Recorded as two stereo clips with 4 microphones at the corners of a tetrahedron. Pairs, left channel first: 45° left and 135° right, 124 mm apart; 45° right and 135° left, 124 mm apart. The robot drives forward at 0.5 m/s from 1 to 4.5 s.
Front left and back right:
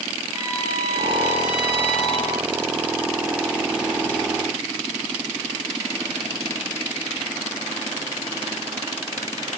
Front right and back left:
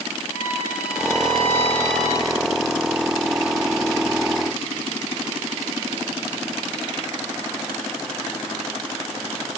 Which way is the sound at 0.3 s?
80° right.